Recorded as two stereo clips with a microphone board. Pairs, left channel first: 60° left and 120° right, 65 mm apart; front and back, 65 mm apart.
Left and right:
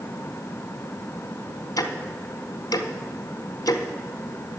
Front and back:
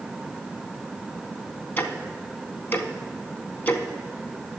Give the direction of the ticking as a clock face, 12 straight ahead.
10 o'clock.